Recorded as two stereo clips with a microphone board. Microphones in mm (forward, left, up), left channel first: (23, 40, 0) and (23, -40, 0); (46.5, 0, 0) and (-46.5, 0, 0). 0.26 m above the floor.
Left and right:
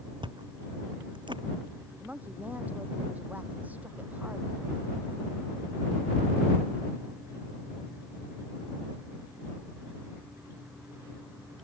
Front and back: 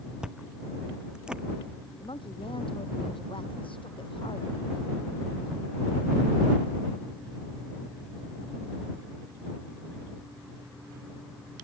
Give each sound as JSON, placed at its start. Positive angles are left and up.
{"t": 0.2, "sound": "chewing", "azimuth_deg": -100}
{"t": 2.0, "sound": "a woman speaking", "azimuth_deg": -20}